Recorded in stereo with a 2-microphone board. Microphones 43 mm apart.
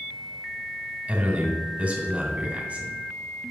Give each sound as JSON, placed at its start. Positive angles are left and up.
{"t": 1.1, "sound": "a man speaking", "side_deg": -35, "distance_m": 2.5}